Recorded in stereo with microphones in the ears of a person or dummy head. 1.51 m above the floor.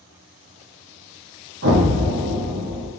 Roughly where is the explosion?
Right.